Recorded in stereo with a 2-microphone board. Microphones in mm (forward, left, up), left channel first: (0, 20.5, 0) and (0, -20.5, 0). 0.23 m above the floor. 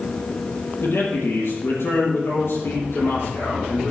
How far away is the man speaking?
About 6.5 m.